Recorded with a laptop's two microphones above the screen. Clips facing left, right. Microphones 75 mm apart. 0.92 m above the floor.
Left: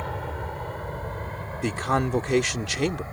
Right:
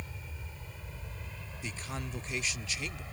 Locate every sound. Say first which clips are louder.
0.0 s an aircraft: left 16 dB; 65° left (ahead or behind); by 3.1 s 35° left (ahead or behind)
1.6 s a man speaking: left 17 dB; 75° left (ahead or behind)